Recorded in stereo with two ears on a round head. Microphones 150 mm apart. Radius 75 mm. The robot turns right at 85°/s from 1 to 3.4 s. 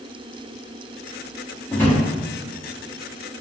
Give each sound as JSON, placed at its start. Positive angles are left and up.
{"t": 1.7, "sound": "a drawer", "side_deg": 15, "distance_m": 0.8}